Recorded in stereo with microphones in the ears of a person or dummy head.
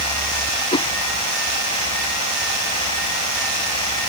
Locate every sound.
0.7 s a whoosh: 30° left (ahead or behind)